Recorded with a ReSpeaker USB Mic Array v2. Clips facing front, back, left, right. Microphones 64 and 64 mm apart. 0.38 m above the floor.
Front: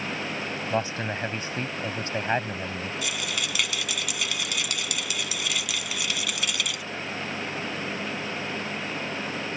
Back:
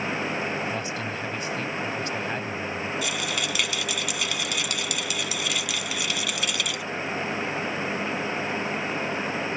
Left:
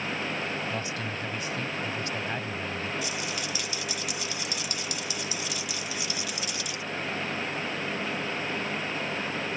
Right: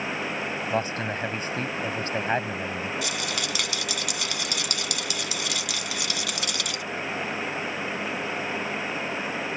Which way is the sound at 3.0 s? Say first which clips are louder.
Back 3 dB, right 3 dB; 90° right.